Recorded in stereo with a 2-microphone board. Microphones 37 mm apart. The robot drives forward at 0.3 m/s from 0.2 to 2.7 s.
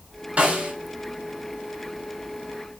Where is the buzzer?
I don't hear a buzzer.